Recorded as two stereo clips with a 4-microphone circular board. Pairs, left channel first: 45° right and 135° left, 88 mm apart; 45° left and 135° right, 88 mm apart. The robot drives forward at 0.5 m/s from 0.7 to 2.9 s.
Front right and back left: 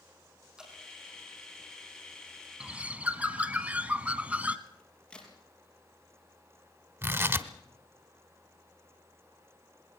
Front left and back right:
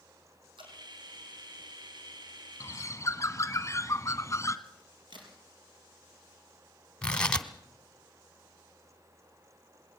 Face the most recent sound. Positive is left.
turn(degrees=115)